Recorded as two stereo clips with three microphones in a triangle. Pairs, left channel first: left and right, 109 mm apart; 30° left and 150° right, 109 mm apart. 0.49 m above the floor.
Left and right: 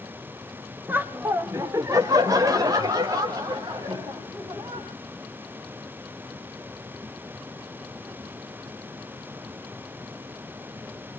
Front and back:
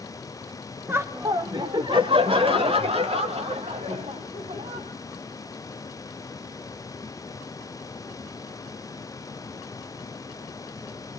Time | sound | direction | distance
0.9 | laughter | 125° right | 1.0 m